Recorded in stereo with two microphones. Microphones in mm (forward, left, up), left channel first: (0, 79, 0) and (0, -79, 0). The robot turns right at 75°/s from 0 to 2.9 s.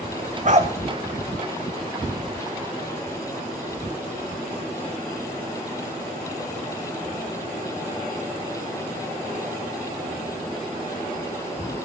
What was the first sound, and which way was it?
A dog barking, 50° right (ahead or behind).